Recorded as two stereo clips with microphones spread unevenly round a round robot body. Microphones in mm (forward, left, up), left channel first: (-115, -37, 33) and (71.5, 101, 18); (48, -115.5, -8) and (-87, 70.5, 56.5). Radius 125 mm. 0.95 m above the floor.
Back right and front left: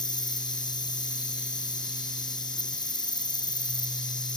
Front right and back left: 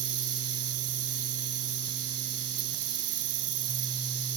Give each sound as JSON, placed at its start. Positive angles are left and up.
{"t": 0.0, "sound": "an insect", "azimuth_deg": 145}